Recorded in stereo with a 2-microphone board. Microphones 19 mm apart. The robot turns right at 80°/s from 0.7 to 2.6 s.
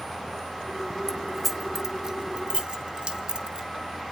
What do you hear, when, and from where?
1.1 s keys jangling: 25° left (ahead or behind), 0.8 m; by 3.7 s 60° right (ahead or behind), 0.8 m